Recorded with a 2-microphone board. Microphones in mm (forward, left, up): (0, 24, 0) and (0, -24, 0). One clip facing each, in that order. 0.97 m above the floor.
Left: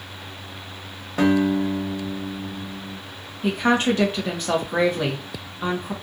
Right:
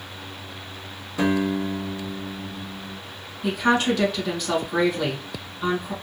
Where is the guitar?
50° left (ahead or behind), 1.1 m.